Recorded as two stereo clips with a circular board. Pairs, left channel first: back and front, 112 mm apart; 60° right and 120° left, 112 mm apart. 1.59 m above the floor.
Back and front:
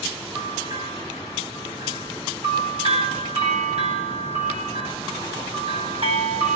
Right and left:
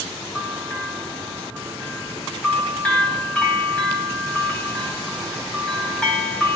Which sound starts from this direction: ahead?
A bell, at 0.3 s.